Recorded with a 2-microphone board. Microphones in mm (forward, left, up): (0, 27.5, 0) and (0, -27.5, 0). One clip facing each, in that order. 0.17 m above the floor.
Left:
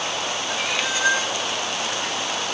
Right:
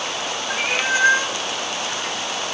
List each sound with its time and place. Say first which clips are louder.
0.5 s a cat meowing: right 6 dB; 40° right (ahead or behind), 1.0 m